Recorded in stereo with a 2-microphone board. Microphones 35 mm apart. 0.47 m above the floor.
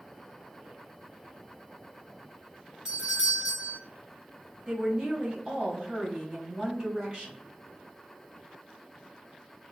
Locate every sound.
2.9 s a doorbell: 15° right (ahead or behind), 1.3 m
4.7 s a woman speaking: 30° right (ahead or behind), 1.2 m